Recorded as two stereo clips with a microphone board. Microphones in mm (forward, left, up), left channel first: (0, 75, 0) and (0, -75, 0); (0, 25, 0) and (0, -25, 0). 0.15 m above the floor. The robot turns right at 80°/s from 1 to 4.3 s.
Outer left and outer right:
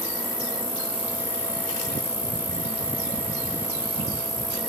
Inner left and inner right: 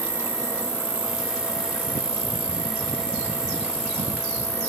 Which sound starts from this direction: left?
An insect, at 0.0 s.